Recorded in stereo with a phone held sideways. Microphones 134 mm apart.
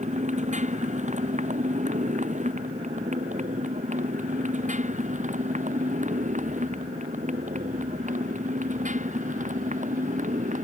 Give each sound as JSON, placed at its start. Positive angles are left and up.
{"t": 0.0, "sound": "a motorcycle", "side_deg": -60}